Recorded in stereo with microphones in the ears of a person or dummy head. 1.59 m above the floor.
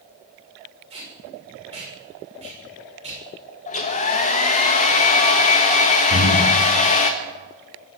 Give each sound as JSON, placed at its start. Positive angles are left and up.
{"t": 0.9, "sound": "tape being pulled", "side_deg": -35, "distance_m": 6.5}
{"t": 3.7, "sound": "a hair dryer", "side_deg": 35, "distance_m": 1.6}
{"t": 6.1, "sound": "breathing", "side_deg": -30, "distance_m": 4.0}